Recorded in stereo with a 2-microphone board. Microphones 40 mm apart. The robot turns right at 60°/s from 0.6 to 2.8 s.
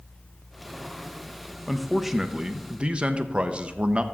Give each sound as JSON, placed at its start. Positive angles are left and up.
{"t": 1.7, "sound": "a man speaking", "azimuth_deg": 175, "distance_m": 0.7}